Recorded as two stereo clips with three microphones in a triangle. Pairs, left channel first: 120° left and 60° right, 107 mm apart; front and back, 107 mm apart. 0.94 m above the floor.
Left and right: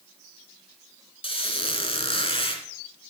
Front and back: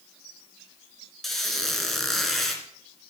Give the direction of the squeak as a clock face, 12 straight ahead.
9 o'clock.